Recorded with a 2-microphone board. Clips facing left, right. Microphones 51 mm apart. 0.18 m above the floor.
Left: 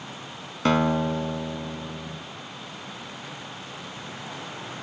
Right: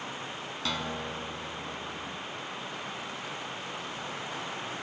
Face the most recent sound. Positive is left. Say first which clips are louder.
# left 13 dB
turn(degrees=45)  # may be behind; listen again after turning